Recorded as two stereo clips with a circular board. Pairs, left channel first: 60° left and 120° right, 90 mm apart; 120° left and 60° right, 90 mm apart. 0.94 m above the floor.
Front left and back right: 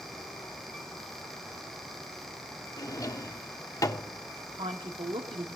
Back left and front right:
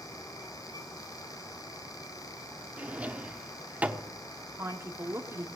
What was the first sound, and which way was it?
A drawer, 15° left.